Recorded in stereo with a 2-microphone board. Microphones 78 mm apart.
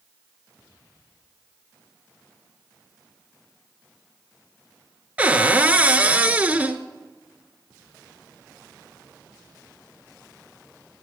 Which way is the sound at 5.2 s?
15° right (ahead or behind).